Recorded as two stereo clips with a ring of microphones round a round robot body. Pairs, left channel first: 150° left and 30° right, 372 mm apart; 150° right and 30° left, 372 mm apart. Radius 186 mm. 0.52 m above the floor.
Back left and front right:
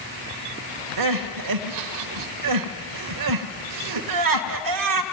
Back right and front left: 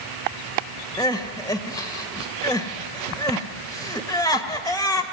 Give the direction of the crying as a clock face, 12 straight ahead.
2 o'clock.